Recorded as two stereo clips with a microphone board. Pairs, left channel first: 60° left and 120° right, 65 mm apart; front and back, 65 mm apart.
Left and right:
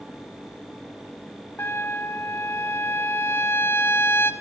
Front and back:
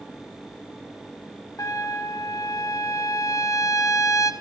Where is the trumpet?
10° left, 1.5 m.